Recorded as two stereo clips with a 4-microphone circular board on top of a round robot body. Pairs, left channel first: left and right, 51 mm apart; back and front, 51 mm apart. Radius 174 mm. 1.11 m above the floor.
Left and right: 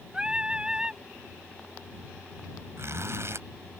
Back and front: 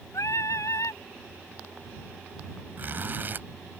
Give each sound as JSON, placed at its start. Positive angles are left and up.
{"t": 0.1, "sound": "singing", "azimuth_deg": -165}
{"t": 2.8, "sound": "a zipper", "azimuth_deg": -55}